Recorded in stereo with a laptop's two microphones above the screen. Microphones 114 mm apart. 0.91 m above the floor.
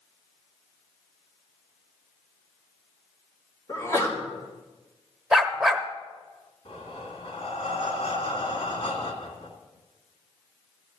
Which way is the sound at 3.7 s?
25° left (ahead or behind).